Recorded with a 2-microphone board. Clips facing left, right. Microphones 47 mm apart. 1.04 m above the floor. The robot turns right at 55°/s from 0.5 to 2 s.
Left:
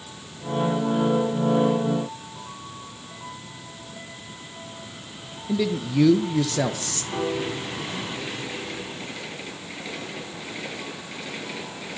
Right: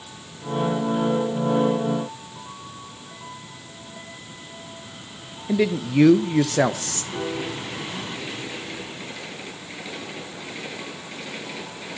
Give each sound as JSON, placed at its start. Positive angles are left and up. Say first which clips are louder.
{"t": 5.5, "sound": "a man speaking", "louder": "right 3 dB", "side_deg": -40, "distance_m": 1.0}
{"t": 7.1, "sound": "a piano", "louder": "left 2 dB", "side_deg": 75, "distance_m": 7.5}